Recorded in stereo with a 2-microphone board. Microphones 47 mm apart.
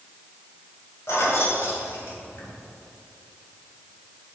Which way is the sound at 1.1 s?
85° left.